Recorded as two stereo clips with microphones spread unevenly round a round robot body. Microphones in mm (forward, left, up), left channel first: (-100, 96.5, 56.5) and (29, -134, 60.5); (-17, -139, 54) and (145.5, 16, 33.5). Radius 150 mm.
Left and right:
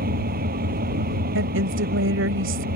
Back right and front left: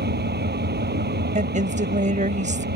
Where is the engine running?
Straight ahead.